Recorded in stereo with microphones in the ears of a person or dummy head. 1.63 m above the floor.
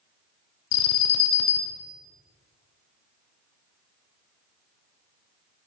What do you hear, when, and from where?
0.7 s an alarm: 75° left (ahead or behind), 0.7 m